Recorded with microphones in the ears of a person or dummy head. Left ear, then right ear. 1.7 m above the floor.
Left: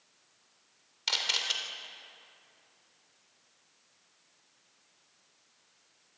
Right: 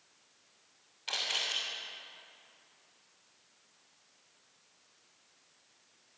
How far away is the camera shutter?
About 3 m.